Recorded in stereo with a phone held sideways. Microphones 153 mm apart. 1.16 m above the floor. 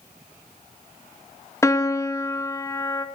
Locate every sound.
1.6 s a piano: 20° left (ahead or behind), 1.9 m